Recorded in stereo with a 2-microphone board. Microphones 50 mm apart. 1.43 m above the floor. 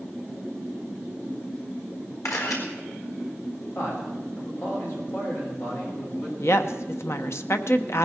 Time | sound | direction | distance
2.2 | a camera shutter | 80° left | 4.5 m
3.8 | a man speaking | 55° left (ahead or behind) | 6.5 m
6.4 | a woman speaking | 60° left (ahead or behind) | 1.0 m